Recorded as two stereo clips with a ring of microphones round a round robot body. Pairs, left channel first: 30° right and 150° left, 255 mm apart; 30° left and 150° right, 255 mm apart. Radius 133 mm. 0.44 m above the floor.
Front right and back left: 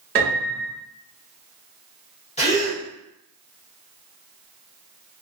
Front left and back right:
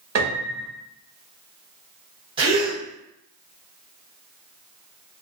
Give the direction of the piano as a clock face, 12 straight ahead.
5 o'clock.